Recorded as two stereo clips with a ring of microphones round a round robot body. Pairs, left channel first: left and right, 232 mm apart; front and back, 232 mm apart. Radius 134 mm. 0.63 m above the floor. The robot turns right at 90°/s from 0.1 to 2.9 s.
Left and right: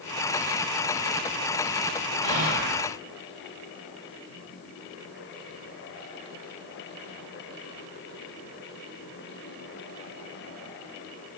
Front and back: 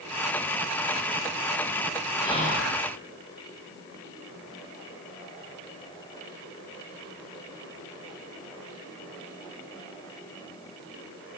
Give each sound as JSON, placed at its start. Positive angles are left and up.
{"t": 2.2, "sound": "whispering", "azimuth_deg": -80, "distance_m": 6.5}